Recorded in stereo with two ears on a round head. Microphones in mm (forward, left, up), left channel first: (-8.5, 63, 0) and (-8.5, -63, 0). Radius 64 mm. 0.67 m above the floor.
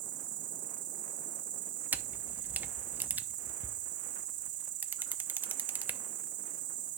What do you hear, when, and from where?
0.0 s an insect: 60° right (ahead or behind), 0.9 m
1.9 s a camera shutter: 15° right (ahead or behind), 0.6 m